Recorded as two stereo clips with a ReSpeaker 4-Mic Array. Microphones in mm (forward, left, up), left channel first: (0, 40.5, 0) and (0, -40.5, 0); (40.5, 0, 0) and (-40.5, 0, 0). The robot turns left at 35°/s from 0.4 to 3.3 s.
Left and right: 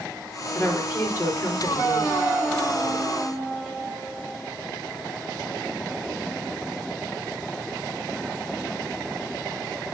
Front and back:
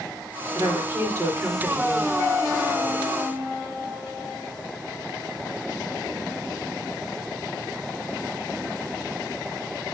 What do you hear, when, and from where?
0.6 s a woman speaking: 160° left, 4 m; by 2.1 s 105° left, 4 m